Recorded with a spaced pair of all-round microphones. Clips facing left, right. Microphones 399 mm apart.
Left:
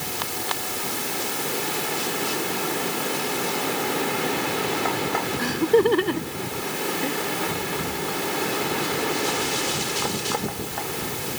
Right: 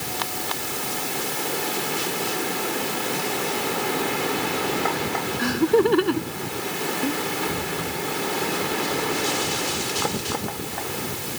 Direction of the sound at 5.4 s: 20° right (ahead or behind).